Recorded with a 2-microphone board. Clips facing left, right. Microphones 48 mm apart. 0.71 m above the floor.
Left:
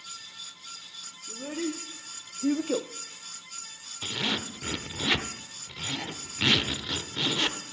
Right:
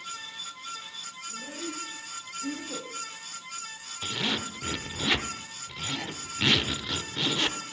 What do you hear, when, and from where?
1.3 s a child speaking: 75° left (ahead or behind), 1.6 m; by 2.9 s 45° left (ahead or behind), 0.5 m
4.0 s a zipper: 5° left (ahead or behind), 0.8 m